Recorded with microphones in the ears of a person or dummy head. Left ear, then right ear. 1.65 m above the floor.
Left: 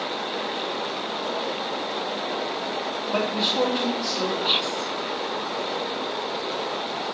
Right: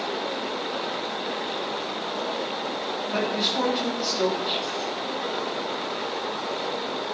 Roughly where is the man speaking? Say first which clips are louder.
Left 2 dB; centre.